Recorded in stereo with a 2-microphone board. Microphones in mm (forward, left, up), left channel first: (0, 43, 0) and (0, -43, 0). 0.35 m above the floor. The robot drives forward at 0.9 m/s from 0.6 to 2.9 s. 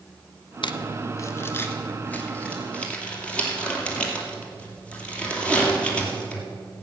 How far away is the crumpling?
About 0.5 m.